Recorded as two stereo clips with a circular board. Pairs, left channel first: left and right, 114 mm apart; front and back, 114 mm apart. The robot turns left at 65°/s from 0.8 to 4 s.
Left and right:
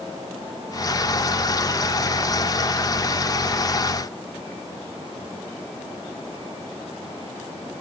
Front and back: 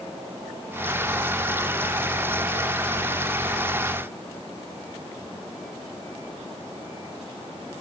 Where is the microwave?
I don't hear a microwave.